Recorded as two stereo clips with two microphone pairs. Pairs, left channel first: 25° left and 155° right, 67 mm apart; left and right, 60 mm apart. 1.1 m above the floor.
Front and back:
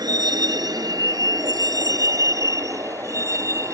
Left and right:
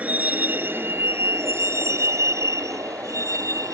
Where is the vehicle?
155° right; by 3.8 s 115° right.